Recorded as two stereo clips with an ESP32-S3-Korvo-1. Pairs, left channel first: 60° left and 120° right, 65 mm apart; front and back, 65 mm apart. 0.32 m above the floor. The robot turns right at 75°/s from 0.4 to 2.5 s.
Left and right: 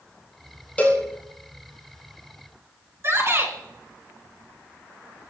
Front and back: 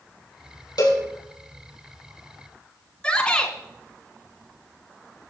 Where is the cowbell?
10° right, 4 m; by 1.0 s 10° left, 4 m.